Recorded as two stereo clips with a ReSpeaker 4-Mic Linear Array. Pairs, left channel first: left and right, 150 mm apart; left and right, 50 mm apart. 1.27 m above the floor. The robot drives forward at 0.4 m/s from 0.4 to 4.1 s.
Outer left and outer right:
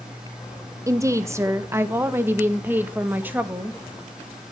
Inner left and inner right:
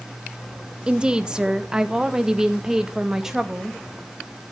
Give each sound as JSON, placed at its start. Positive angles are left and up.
{"t": 0.9, "sound": "a woman speaking", "side_deg": -20, "distance_m": 1.1}